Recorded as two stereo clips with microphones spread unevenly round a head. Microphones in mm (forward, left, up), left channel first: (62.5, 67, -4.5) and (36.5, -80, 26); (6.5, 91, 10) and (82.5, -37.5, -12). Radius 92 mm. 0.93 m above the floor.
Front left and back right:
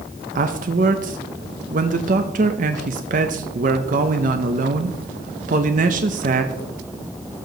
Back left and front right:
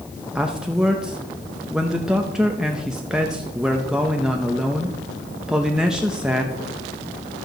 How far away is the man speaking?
About 0.6 m.